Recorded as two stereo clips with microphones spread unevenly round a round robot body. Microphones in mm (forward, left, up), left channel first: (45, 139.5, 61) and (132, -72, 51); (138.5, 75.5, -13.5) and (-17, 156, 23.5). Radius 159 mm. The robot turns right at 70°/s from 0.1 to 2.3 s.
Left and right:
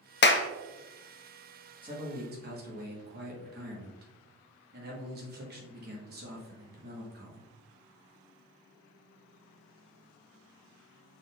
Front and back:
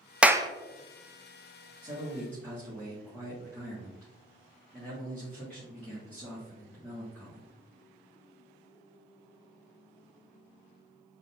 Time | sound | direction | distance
0.2 | a clap | 65° left | 0.6 m
1.8 | a man speaking | 135° right | 1.4 m